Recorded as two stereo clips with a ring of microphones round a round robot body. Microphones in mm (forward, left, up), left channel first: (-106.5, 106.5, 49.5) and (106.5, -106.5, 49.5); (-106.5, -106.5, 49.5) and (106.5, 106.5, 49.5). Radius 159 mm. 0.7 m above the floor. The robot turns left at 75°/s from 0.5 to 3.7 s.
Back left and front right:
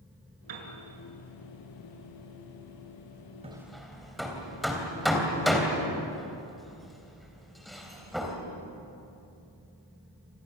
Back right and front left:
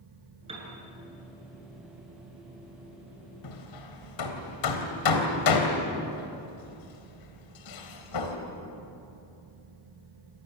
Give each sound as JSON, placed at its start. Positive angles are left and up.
{"t": 0.5, "sound": "a piano", "azimuth_deg": -25, "distance_m": 5.0}
{"t": 3.4, "sound": "hammering", "azimuth_deg": -115, "distance_m": 3.5}